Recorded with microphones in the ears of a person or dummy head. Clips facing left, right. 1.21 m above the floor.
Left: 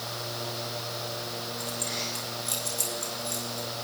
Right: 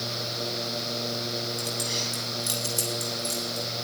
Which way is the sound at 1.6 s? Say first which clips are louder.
Right 2 dB; 65° right (ahead or behind).